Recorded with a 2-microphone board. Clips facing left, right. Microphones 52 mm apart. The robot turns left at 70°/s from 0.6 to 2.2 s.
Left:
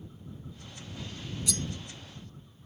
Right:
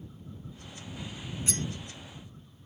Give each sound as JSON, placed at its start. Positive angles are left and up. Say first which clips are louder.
{"t": 1.5, "sound": "cutlery clinking", "louder": "right 1 dB", "side_deg": -35}